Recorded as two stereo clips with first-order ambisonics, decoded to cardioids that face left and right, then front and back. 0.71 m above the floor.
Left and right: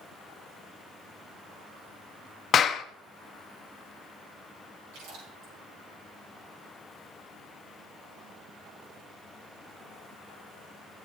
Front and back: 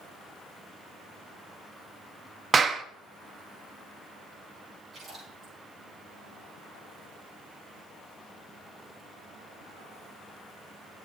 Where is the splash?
105° right, 8 m.